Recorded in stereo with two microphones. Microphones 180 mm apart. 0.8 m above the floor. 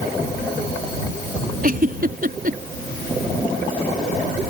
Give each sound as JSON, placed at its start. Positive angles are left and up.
{"t": 1.6, "sound": "a giggle", "side_deg": -55}